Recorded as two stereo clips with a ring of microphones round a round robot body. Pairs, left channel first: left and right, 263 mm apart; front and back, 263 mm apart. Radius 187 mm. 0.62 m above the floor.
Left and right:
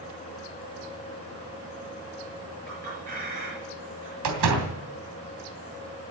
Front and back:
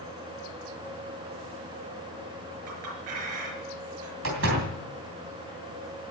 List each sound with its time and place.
2.7 s a clink: 160° right, 6.5 m
4.2 s a door slam: 120° right, 3 m